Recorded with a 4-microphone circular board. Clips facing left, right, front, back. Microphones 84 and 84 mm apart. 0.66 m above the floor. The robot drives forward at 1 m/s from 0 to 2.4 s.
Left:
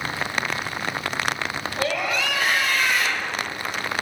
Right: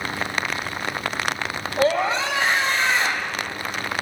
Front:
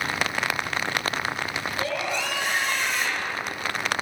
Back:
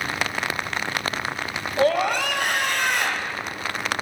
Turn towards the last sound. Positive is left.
turn(degrees=-150)